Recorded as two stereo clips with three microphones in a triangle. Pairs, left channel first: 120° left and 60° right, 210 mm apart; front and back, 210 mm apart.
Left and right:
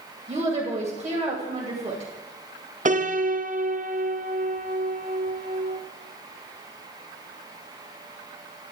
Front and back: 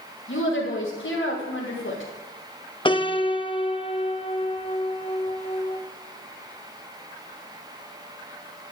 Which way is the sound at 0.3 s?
5° right.